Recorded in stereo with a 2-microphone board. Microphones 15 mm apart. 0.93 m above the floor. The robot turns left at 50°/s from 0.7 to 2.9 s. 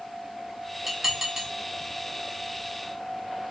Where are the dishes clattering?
20° right (ahead or behind), 1.7 m; by 1.5 s 50° right (ahead or behind), 1.7 m.